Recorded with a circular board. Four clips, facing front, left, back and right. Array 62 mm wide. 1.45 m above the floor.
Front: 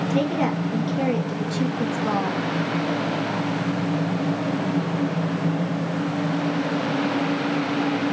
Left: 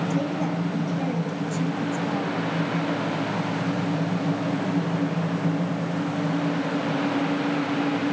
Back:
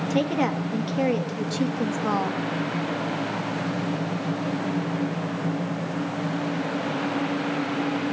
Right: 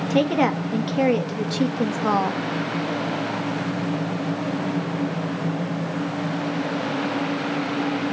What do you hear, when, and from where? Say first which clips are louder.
0.1 s a woman speaking: right 6 dB, even; 100° right, 2.5 m